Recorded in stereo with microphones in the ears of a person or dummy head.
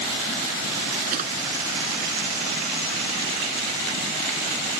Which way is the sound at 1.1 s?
50° right (ahead or behind).